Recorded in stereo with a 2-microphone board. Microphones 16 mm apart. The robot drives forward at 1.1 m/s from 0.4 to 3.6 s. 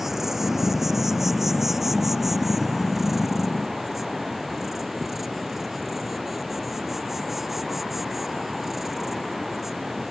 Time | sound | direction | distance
0.0 | an insect | 20° right (ahead or behind) | ?